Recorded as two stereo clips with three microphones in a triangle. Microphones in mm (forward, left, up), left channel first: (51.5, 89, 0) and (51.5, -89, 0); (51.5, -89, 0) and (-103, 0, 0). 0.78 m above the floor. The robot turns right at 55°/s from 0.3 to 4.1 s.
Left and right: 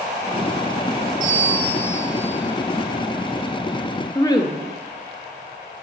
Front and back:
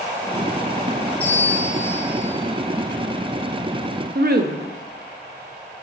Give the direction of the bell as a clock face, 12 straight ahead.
3 o'clock.